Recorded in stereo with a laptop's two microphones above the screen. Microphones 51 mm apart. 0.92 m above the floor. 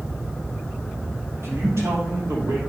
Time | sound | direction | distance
1.4 | a man speaking | 60° right (ahead or behind) | 2.5 m